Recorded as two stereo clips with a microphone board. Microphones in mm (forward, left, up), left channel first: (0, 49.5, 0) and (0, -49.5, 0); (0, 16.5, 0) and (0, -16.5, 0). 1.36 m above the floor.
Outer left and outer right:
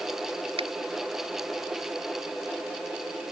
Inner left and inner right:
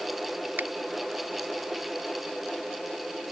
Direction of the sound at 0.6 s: 80° right.